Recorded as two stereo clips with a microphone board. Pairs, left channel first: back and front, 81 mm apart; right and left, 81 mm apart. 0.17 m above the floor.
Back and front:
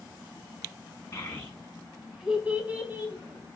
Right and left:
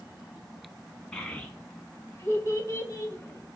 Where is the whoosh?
No whoosh in this recording.